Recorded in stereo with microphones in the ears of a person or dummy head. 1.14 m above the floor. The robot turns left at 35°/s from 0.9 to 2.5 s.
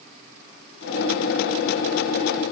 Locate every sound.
Only background noise.